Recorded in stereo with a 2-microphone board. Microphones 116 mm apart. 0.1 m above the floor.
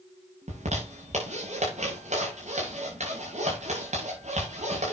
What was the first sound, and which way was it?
A zipper, 85° right.